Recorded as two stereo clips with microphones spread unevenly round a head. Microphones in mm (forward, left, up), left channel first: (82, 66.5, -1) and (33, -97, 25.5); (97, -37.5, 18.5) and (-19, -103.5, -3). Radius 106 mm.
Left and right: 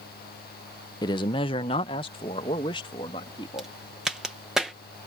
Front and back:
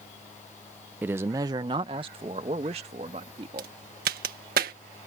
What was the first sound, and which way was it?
A man speaking, 125° left.